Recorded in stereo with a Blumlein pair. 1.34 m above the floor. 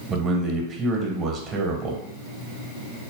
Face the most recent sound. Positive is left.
turn(degrees=-15)